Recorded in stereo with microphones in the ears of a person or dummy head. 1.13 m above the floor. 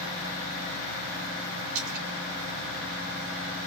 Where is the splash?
65° right (ahead or behind), 2.5 m.